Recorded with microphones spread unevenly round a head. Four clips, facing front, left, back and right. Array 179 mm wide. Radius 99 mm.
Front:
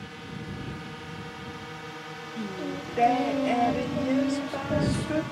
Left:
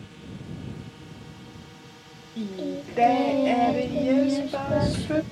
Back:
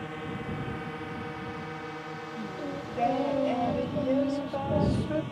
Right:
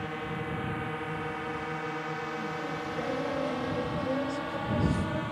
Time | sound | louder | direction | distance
0.0 | a drone | right 8 dB, back 4 dB | 125° right | ?
2.4 | singing | left 3 dB, front 4 dB | 55° left | ?